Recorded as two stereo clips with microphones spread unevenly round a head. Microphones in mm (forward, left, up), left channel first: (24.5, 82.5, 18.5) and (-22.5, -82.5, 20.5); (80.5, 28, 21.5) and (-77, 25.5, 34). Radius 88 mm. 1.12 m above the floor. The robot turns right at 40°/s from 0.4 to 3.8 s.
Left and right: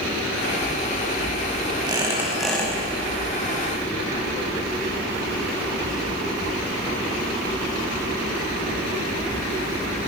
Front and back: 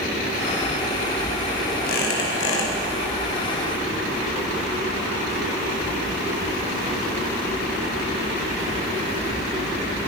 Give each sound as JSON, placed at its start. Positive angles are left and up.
{"t": 1.9, "sound": "a squeak", "azimuth_deg": -40, "distance_m": 5.5}